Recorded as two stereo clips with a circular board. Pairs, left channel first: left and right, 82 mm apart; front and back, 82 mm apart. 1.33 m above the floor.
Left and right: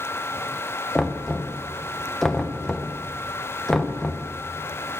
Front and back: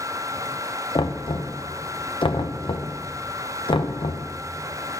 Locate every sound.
0.9 s knocking: 5° left, 0.8 m